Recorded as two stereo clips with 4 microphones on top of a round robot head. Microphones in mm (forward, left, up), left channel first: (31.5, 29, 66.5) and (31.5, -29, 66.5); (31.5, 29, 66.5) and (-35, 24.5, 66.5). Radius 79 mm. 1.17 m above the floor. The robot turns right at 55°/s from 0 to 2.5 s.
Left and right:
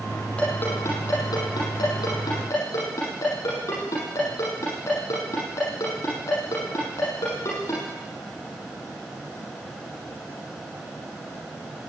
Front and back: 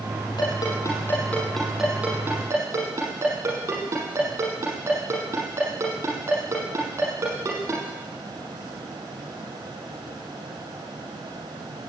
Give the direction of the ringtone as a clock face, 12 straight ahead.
11 o'clock.